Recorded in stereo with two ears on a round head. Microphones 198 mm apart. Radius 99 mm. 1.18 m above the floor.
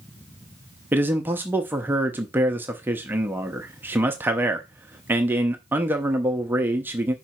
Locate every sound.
0.9 s a man speaking: 10° right (ahead or behind), 0.7 m